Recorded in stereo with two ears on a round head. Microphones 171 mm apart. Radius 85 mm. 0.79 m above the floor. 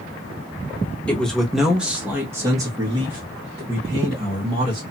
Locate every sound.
1.1 s a man speaking: 5° left (ahead or behind), 1.1 m; by 4.8 s 30° right (ahead or behind), 1.9 m